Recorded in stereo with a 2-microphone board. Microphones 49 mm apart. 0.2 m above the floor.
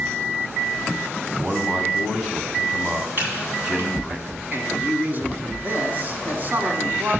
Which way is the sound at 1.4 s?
20° right (ahead or behind).